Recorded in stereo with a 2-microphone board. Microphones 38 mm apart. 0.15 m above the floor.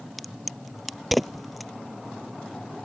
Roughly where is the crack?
Centre.